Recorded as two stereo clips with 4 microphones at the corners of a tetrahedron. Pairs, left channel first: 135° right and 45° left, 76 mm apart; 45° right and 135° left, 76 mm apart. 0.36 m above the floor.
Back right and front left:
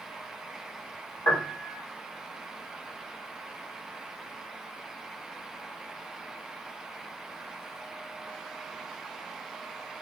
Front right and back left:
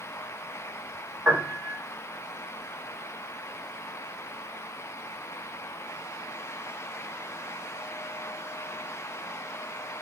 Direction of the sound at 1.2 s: 155° right.